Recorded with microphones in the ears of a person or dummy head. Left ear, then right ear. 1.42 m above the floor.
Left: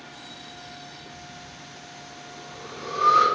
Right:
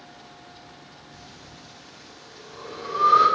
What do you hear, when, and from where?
1.1 s breathing: 60° left (ahead or behind), 1.5 m